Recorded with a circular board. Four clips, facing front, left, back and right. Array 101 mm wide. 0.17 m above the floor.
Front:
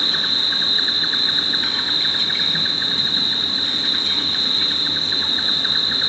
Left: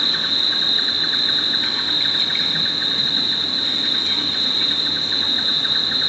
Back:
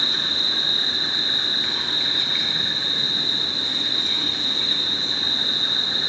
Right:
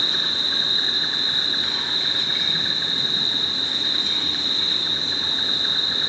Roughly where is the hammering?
I don't hear hammering.